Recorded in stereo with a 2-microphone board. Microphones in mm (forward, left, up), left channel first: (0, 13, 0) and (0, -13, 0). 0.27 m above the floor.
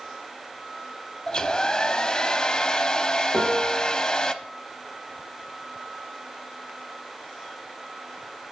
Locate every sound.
1.3 s a hair dryer: 30° left (ahead or behind), 0.6 m
3.3 s a piano: 65° right (ahead or behind), 3.5 m